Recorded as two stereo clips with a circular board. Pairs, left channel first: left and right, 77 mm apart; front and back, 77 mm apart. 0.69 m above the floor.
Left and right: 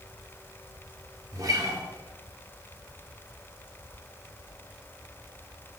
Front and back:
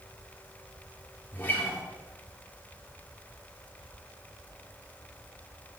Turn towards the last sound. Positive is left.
turn(degrees=-60)